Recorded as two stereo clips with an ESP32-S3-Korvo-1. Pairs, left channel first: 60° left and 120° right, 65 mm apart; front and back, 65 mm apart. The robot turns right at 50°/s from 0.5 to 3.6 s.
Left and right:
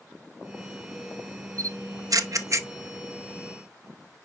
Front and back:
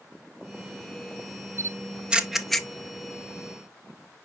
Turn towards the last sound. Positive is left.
turn(degrees=-30)